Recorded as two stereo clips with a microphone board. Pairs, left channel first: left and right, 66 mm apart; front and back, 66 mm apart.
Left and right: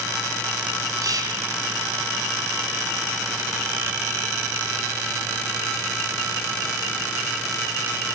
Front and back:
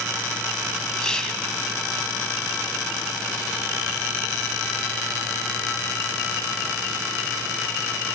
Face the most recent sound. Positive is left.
turn(degrees=-80)